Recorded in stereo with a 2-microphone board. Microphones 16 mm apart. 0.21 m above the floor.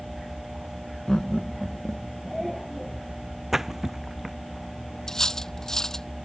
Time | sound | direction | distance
1.1 | laughter | 45° left (ahead or behind) | ?
3.5 | a splash | 20° right (ahead or behind) | ?
5.1 | cutlery clinking | 35° left (ahead or behind) | ?